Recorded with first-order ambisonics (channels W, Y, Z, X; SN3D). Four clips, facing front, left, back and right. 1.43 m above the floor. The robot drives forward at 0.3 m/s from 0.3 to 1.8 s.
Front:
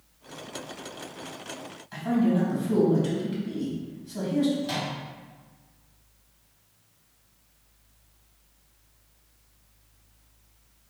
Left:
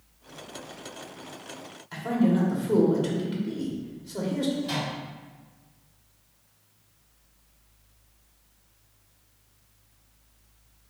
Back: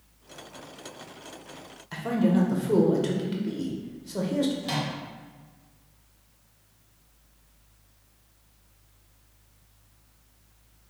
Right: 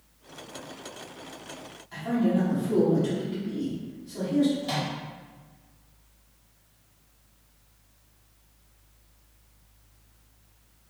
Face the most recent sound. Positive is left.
turn(degrees=-160)